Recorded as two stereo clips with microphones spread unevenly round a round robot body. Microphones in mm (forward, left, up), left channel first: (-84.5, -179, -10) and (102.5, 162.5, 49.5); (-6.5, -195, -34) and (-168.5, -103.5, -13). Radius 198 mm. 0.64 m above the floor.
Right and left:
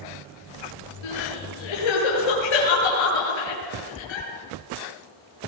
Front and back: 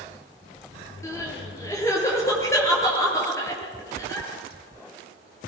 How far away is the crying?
About 8 m.